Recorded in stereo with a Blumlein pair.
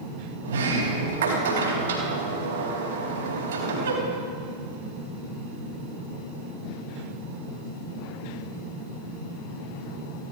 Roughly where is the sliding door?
Ahead right.